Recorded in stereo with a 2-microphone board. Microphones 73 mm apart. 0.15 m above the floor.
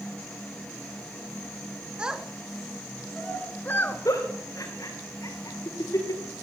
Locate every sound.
2.0 s a child speaking: 10° right (ahead or behind), 1.3 m; by 4.0 s 35° left (ahead or behind), 1.4 m
4.0 s a giggle: 50° left (ahead or behind), 4 m